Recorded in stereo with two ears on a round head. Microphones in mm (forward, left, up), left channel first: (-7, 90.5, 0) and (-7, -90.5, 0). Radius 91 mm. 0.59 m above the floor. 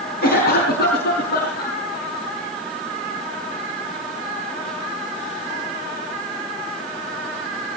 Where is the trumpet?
No trumpet in this recording.